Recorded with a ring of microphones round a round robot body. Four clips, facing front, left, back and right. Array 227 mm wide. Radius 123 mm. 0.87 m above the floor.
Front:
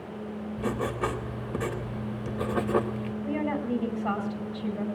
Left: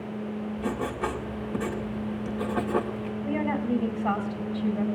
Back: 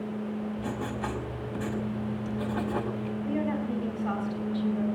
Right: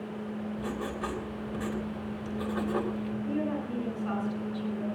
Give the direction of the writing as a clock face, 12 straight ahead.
11 o'clock.